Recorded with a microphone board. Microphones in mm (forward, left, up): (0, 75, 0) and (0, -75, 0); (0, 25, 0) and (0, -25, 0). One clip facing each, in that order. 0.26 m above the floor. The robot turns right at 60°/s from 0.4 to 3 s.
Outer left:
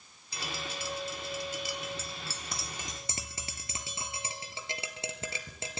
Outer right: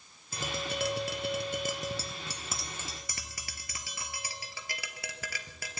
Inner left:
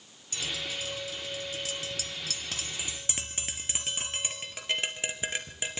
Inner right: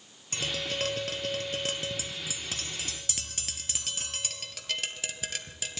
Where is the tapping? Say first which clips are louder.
Outer right 5 dB, inner right 3 dB; 50° right (ahead or behind), 2.5 m; by 5.8 s 25° left (ahead or behind), 2.5 m.